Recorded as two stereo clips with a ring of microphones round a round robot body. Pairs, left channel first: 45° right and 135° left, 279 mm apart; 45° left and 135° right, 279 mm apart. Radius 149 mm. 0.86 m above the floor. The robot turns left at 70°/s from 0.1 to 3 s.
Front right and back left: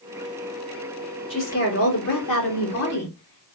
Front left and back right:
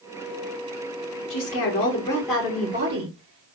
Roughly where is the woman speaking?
Ahead left.